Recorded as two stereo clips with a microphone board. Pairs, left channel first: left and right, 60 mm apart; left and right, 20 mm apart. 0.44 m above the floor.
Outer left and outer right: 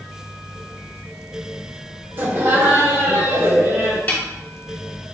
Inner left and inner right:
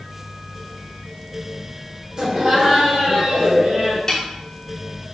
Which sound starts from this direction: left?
A snare drum, at 4.1 s.